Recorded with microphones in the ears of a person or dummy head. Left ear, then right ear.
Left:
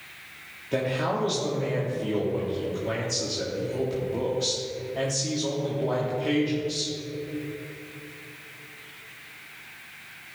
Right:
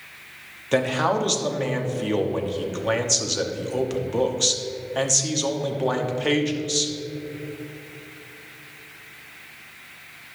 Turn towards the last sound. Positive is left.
turn(degrees=-45)  # may be behind; listen again after turning